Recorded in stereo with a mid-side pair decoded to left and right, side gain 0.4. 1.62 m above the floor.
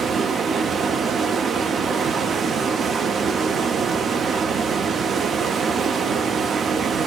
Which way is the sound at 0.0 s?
55° right.